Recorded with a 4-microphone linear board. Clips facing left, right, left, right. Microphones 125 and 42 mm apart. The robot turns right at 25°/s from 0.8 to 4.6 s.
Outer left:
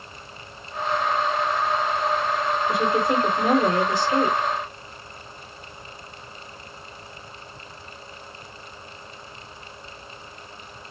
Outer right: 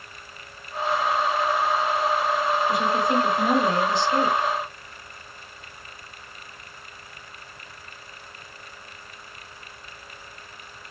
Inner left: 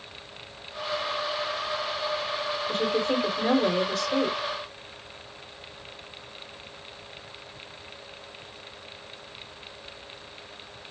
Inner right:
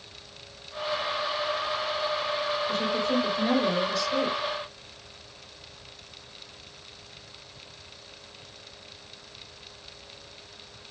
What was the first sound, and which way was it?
A woman speaking, 50° left.